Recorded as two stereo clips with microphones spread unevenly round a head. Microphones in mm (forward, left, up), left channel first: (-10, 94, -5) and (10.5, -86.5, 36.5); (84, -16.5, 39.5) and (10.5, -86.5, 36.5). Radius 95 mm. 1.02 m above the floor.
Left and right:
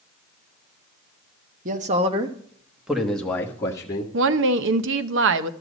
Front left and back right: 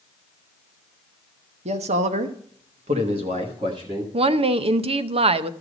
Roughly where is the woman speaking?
Right.